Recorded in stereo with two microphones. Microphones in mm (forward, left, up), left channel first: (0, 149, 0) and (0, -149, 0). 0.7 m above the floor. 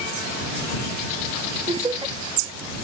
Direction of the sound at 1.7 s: 15° right (ahead or behind).